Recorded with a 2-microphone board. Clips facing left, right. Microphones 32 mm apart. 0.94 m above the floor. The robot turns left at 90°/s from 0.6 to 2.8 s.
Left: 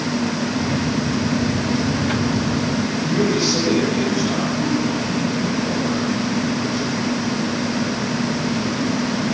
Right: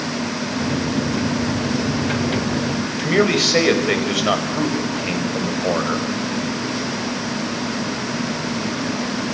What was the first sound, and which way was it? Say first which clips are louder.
A man speaking: right 4 dB; 80° right.